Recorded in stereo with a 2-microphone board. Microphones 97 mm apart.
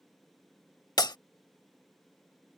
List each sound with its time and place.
1.0 s breaking glass: 45° left (ahead or behind)